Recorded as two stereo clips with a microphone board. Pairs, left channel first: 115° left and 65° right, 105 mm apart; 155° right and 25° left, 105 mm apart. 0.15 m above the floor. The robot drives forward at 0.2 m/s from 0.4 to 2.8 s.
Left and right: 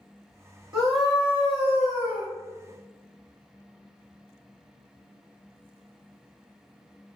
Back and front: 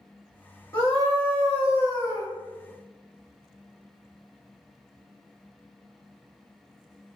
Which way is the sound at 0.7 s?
140° right.